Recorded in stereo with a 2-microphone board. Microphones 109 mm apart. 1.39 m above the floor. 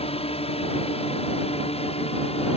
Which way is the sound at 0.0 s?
65° left (ahead or behind).